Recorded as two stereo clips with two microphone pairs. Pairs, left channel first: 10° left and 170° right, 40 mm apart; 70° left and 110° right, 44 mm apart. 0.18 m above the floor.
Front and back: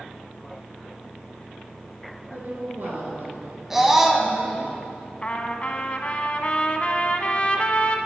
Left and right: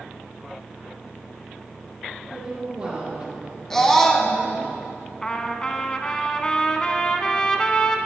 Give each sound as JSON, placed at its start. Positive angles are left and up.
{"t": 2.3, "sound": "a woman speaking", "azimuth_deg": -175, "distance_m": 2.5}
{"t": 3.7, "sound": "a scream", "azimuth_deg": 130, "distance_m": 1.0}
{"t": 5.2, "sound": "a trumpet", "azimuth_deg": 15, "distance_m": 0.6}